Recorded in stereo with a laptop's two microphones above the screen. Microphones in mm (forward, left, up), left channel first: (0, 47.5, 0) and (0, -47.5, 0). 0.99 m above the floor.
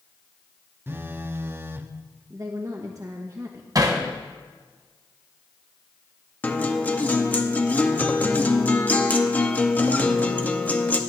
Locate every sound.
0.9 s a phone buzzing: 25° right (ahead or behind), 0.7 m
2.3 s a woman speaking: 35° right (ahead or behind), 1.0 m
3.8 s hammering: 40° right (ahead or behind), 1.7 m
6.4 s a guitar: 20° left (ahead or behind), 0.7 m